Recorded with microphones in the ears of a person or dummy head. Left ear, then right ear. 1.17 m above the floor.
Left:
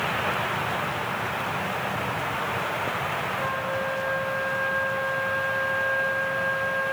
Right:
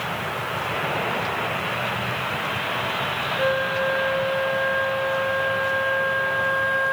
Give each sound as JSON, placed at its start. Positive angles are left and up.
{"t": 3.4, "sound": "a flute", "side_deg": -50, "distance_m": 1.6}